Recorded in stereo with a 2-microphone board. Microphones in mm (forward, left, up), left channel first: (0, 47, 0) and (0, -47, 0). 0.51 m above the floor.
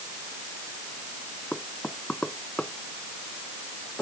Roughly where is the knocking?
Centre.